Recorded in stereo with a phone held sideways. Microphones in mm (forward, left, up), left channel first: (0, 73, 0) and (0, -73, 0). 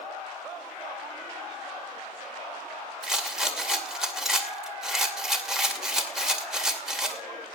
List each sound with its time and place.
3.0 s a rattle: 5° right (ahead or behind), 2.5 m